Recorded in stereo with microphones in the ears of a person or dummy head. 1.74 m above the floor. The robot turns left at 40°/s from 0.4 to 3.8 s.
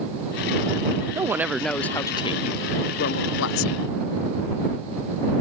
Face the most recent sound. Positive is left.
turn(degrees=95)